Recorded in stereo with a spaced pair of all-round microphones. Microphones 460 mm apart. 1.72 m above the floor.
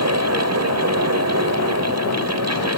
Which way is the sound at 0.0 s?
35° right (ahead or behind).